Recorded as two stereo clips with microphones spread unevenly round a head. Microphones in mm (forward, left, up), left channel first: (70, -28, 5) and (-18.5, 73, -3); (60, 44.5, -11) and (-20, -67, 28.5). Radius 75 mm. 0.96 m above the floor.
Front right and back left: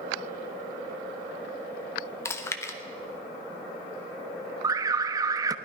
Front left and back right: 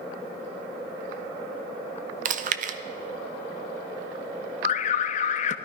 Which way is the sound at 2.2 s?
115° right.